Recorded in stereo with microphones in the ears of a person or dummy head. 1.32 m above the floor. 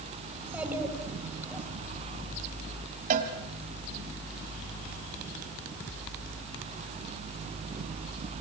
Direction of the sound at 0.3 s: 10° right (ahead or behind).